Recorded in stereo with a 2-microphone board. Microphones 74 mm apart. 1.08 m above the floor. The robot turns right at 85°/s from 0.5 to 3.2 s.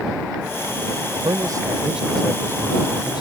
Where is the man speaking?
90° right; by 3.2 s 90° left.